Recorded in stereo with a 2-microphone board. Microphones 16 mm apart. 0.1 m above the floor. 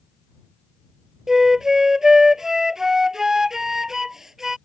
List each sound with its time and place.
1.3 s a flute: 30° right (ahead or behind)